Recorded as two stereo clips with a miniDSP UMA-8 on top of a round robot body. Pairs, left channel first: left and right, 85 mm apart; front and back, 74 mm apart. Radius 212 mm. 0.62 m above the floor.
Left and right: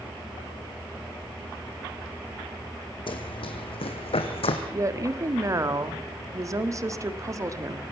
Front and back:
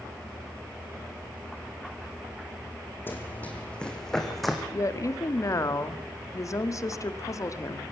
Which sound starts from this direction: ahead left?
Running footsteps, at 3.1 s.